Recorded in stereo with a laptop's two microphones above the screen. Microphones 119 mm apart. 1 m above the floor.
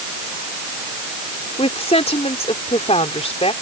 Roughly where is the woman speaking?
Left.